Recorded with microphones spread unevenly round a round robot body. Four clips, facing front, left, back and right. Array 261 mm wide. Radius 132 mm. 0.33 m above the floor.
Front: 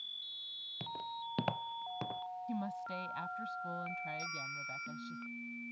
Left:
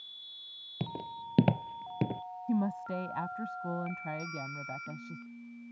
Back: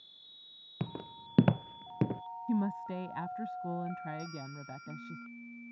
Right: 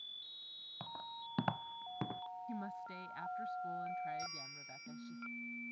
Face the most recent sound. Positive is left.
turn(degrees=-120)